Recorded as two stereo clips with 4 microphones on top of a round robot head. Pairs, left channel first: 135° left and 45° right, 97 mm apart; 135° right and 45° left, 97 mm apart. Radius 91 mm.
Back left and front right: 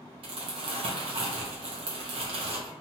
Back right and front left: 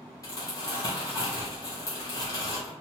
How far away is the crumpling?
About 0.7 m.